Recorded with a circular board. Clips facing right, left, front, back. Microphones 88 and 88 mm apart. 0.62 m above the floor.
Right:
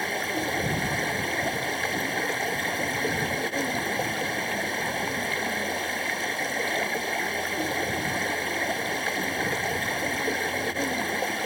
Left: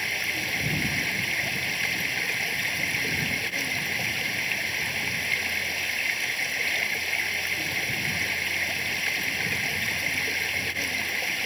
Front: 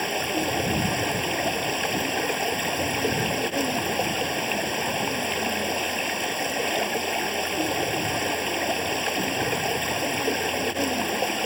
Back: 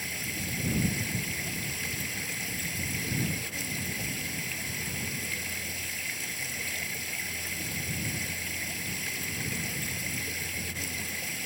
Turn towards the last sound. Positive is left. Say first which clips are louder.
# right 4 dB, front 13 dB
turn(degrees=-30)